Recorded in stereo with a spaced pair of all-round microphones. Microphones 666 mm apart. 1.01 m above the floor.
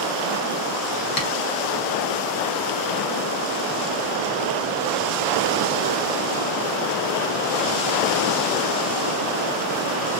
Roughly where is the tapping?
Left.